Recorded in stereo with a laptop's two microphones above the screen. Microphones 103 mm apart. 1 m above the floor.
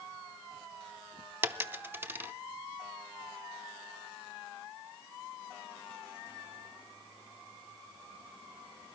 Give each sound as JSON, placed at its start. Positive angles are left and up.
{"t": 1.4, "sound": "a dropped coin", "side_deg": -20, "distance_m": 0.7}